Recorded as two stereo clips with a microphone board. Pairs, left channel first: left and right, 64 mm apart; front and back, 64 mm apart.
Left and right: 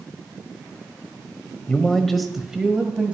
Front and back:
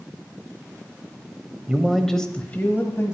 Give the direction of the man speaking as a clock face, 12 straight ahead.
8 o'clock.